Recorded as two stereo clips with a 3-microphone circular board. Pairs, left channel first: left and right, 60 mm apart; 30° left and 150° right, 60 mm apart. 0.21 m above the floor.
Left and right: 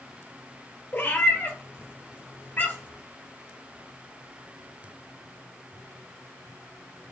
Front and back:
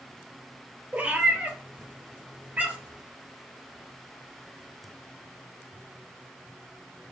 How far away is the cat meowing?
About 1.7 m.